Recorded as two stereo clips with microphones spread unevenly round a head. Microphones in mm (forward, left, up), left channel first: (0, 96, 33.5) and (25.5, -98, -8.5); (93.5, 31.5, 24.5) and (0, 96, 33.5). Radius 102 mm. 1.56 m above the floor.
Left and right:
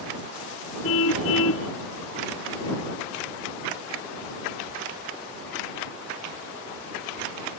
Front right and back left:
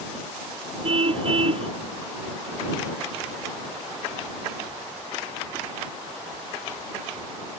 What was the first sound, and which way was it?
A car horn, 115° left.